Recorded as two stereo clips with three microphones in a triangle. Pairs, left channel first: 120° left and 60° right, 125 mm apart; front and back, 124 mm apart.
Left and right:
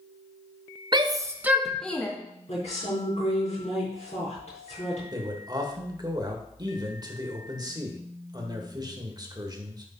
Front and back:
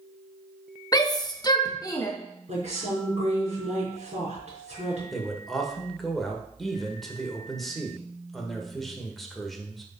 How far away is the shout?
About 0.9 m.